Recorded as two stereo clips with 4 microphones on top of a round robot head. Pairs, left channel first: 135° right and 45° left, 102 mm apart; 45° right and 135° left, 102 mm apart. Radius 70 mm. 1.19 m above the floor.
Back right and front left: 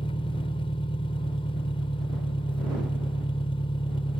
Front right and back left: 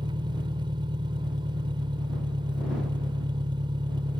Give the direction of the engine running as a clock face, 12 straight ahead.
6 o'clock.